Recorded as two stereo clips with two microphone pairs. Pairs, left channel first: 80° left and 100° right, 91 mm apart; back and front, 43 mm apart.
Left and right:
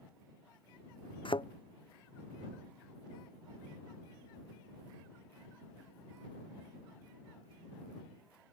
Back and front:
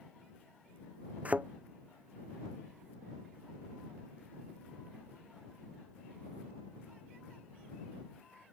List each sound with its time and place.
1.2 s a thud: 60° left